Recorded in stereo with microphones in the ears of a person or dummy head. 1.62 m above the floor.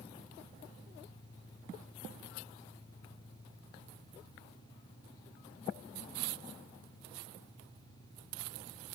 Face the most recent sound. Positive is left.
turn(degrees=30)  # may be behind; listen again after turning